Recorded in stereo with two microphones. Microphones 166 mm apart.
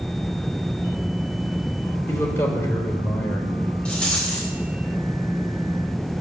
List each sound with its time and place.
2.1 s a man speaking: 15° left (ahead or behind), 3 m
3.9 s a rattle: 5° left (ahead or behind), 4 m